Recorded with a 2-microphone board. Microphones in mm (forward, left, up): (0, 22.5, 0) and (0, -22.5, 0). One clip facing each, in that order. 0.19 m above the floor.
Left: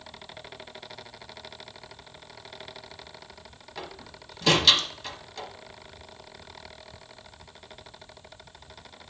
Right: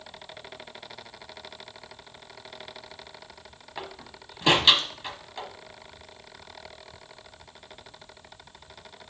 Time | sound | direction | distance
3.8 | a door slam | 20° right (ahead or behind) | 1.0 m